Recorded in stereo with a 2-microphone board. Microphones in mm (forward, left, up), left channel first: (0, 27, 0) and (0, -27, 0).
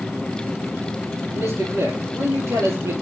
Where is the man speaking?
60° right (ahead or behind), 5.5 m.